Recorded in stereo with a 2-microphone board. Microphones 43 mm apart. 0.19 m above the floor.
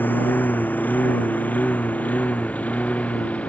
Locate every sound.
0.0 s a lawn mower: 45° left (ahead or behind); by 3.5 s 30° left (ahead or behind)